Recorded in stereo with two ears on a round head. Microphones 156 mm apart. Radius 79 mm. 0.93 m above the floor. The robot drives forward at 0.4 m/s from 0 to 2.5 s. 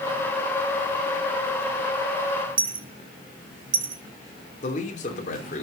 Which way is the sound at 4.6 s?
45° left (ahead or behind).